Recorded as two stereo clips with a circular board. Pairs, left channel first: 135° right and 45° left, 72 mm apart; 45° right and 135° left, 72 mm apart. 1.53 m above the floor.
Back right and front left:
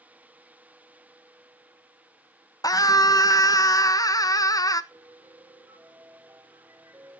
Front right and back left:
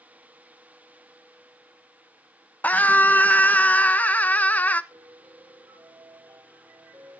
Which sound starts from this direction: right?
A scream, at 2.6 s.